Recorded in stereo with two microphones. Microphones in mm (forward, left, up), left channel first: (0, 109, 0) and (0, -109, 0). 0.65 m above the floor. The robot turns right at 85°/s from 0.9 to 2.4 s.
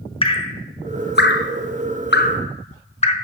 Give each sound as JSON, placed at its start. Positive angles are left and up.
{"t": 0.2, "sound": "dripping", "side_deg": 25, "distance_m": 0.8}